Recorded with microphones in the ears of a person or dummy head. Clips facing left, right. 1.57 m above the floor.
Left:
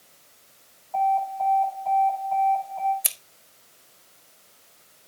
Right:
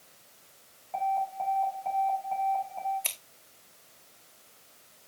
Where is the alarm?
30° right (ahead or behind), 5 m.